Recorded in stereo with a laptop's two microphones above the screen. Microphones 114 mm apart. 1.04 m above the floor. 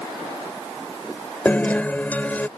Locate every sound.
1.4 s a guitar: 15° left (ahead or behind)